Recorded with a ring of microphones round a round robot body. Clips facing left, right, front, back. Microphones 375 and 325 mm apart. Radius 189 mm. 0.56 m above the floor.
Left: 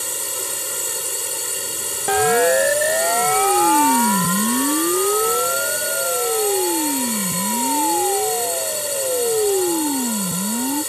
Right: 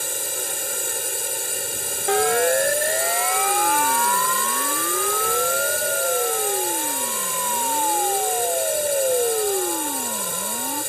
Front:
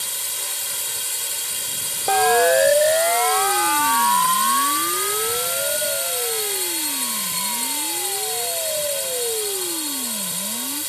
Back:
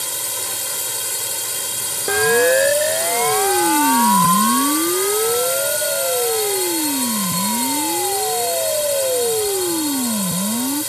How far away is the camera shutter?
No camera shutter in this recording.